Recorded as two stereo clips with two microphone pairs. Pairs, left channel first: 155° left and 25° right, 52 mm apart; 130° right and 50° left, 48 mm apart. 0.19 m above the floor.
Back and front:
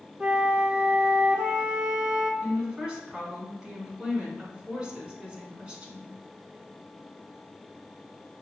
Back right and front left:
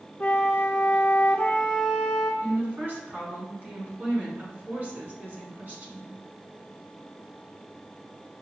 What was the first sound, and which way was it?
A flute, 80° right.